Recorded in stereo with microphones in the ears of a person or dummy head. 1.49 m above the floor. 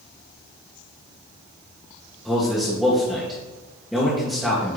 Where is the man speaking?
Centre (ahead or behind), 1.7 m.